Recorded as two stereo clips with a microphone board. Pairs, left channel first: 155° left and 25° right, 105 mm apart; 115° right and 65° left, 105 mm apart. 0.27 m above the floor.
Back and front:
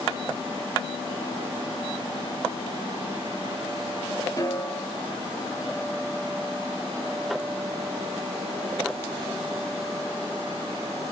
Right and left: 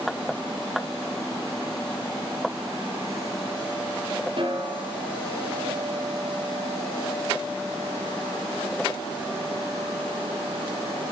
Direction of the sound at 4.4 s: 105° left.